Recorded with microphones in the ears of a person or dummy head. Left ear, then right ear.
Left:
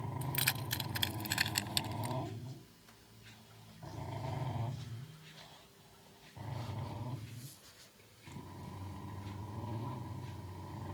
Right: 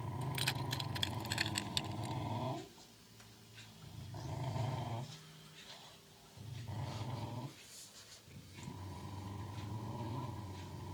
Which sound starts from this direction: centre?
Keys jangling, at 0.2 s.